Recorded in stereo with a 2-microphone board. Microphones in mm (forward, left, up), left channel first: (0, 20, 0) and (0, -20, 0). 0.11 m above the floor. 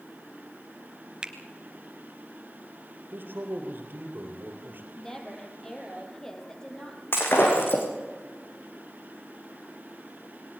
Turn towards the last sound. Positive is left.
turn(degrees=60)  # may be behind; listen again after turning